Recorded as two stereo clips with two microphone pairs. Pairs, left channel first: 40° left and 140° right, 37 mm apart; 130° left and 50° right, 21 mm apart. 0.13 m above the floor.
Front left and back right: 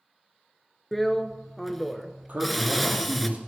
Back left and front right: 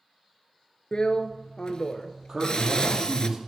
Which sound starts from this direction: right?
A man speaking, at 2.3 s.